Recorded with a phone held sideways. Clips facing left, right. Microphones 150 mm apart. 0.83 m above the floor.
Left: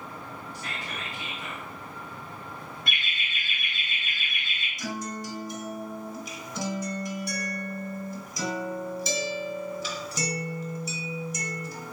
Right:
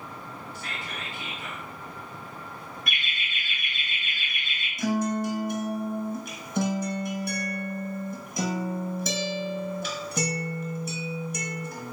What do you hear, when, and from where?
0.5 s whispering: 40° left (ahead or behind), 1.6 m
2.9 s laughter: 30° left (ahead or behind), 0.7 m
4.8 s a guitar: 55° right (ahead or behind), 0.8 m